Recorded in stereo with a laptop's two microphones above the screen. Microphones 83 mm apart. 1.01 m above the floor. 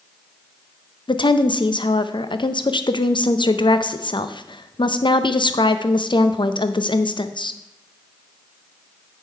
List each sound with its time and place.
1.1 s a woman speaking: 75° left (ahead or behind), 0.5 m